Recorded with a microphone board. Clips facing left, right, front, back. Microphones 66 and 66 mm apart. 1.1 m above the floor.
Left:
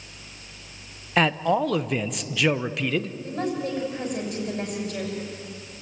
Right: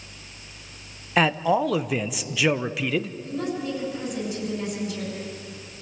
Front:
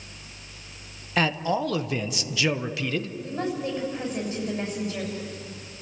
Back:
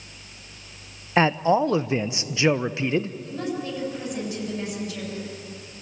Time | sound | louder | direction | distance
1.2 | a man speaking | right 1 dB, back 5 dB | 175° right | 0.7 m
3.2 | a woman speaking | left 1 dB, front 1 dB | 55° left | 7 m